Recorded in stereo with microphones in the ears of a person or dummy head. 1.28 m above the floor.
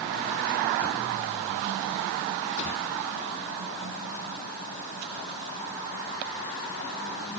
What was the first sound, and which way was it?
Only background noise.